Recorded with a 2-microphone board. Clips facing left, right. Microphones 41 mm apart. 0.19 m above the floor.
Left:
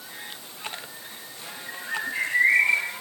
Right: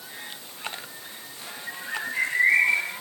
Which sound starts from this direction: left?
A bird, at 1.7 s.